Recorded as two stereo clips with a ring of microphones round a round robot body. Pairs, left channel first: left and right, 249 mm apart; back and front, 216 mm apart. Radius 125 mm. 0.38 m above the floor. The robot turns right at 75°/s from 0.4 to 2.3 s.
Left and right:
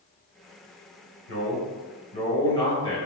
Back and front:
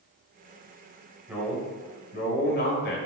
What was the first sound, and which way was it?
A man speaking, 80° left.